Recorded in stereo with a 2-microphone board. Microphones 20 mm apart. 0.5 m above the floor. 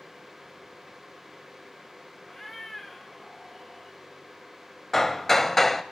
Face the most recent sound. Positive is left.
turn(degrees=15)  # may be behind; listen again after turning